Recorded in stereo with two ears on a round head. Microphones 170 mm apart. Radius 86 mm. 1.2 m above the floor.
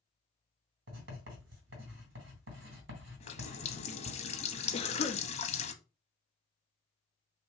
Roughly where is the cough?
Left.